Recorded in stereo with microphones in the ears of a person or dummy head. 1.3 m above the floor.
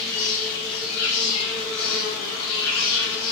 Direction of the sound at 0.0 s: 70° left (ahead or behind).